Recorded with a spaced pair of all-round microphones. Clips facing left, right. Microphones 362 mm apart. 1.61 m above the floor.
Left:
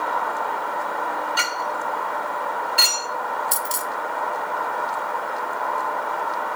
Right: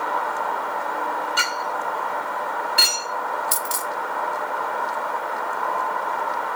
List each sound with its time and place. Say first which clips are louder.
1.4 s a clink: even; 30° right (ahead or behind), 3 m
3.5 s a dropped coin: even; 15° right (ahead or behind), 1.1 m